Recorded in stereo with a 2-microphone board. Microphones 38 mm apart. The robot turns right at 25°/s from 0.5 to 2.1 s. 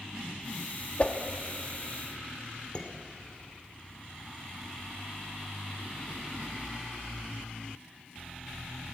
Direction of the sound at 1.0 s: 35° left (ahead or behind).